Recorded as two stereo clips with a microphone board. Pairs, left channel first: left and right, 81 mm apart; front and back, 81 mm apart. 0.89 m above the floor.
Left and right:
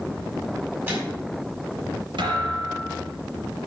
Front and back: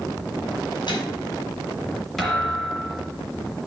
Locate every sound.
0.9 s a microwave: 25° right, 4.5 m
2.2 s a thud: 85° right, 4 m